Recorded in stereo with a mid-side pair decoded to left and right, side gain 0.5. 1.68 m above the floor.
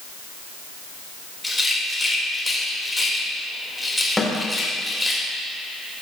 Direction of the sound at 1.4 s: 10° left.